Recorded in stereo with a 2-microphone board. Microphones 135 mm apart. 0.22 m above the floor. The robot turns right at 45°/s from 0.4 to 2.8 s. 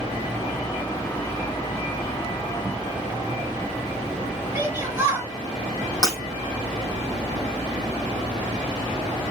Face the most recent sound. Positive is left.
turn(degrees=30)  # may be behind; listen again after turning